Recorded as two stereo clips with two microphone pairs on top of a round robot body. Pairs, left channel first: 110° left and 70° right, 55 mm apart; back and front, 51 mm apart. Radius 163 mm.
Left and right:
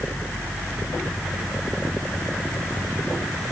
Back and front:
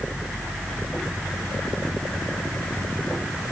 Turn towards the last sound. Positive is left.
No sound to turn to.